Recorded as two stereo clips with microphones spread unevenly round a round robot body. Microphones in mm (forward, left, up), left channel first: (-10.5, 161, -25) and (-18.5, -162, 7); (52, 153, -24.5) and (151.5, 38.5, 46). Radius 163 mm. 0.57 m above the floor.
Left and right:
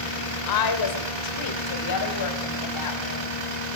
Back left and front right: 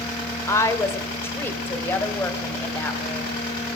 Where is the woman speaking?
70° left, 1.9 m; by 3.3 s 55° left, 3.5 m.